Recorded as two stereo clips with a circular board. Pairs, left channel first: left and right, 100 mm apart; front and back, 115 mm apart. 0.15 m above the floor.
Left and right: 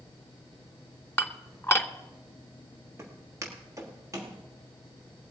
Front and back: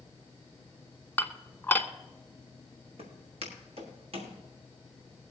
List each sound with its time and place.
1.2 s dishes clattering: 55° left, 0.8 m
3.0 s footsteps: 155° right, 4 m; by 4.3 s 150° right, 5 m